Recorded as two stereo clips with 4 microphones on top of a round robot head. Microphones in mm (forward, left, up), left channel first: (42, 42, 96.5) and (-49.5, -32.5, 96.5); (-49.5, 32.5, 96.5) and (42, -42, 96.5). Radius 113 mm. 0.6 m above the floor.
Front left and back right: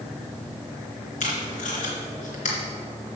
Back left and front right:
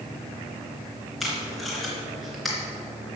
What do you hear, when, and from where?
1.2 s tape being pulled: 50° left, 3 m